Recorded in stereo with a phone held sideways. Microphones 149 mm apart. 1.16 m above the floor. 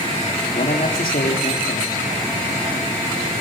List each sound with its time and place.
0.5 s a man speaking: 75° left (ahead or behind), 3.5 m